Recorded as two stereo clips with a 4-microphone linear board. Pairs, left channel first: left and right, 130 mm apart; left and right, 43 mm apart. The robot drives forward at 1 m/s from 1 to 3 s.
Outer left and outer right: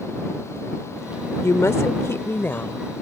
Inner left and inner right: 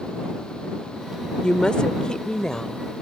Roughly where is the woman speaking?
Left.